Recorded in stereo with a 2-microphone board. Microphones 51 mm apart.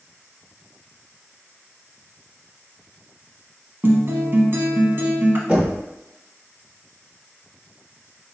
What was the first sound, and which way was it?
A guitar, 50° right (ahead or behind).